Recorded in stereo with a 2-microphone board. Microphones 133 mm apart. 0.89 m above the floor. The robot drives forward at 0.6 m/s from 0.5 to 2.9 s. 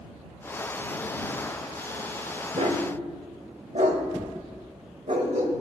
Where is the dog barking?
60° right (ahead or behind), 1.1 m.